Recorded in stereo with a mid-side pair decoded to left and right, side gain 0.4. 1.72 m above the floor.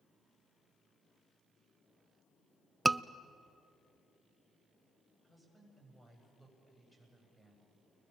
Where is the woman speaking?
5° left, 9 m.